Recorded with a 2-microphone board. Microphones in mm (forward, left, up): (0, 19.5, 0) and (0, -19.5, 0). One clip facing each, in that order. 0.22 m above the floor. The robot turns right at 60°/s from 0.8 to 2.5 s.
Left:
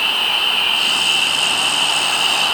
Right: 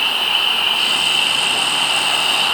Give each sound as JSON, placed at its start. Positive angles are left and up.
{"t": 0.0, "sound": "an insect", "azimuth_deg": 45, "distance_m": 4.0}